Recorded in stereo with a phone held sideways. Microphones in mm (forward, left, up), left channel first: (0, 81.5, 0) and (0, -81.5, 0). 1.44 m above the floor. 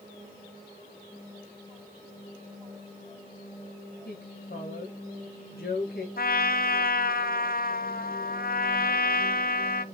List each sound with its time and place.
4.0 s a woman speaking: 70° left (ahead or behind), 1.7 m
6.2 s a trumpet: 65° left (ahead or behind), 0.6 m